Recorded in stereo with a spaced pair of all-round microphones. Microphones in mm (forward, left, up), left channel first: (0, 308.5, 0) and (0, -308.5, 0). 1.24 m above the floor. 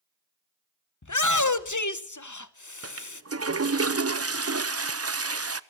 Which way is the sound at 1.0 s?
30° left (ahead or behind).